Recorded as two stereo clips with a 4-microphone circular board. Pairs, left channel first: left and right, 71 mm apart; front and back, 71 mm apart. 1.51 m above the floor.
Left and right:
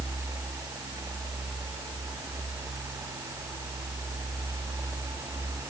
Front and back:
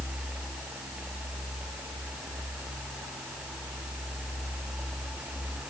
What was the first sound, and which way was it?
Only background noise.